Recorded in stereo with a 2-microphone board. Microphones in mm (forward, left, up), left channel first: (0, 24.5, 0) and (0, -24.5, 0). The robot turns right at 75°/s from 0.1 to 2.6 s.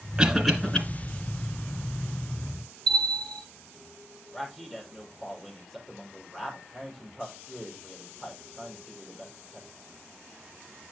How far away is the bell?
About 6 m.